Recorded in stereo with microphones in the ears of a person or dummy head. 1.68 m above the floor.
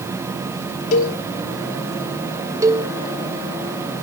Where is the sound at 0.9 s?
45° left (ahead or behind), 1.3 m.